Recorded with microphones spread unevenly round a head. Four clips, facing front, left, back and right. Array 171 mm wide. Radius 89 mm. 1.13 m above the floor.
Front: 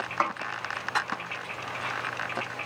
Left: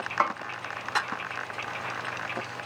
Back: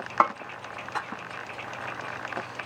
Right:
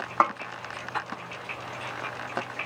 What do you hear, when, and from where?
0.2 s a snare drum: 150° right, 0.8 m